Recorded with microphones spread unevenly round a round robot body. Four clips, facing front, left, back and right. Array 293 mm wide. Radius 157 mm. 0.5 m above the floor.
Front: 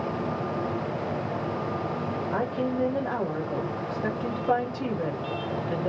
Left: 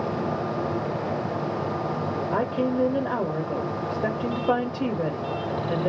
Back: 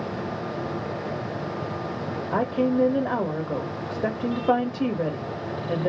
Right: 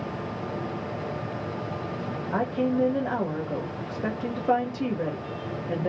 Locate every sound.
2.3 s a woman speaking: 160° left, 1.5 m